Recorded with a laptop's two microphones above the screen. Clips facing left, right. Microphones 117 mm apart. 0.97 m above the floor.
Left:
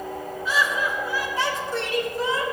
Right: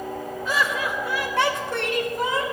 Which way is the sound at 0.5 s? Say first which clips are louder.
Left 1 dB; 50° right (ahead or behind).